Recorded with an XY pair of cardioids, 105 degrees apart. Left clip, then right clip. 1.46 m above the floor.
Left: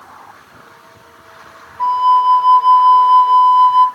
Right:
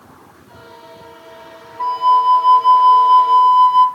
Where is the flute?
5° right, 0.7 m.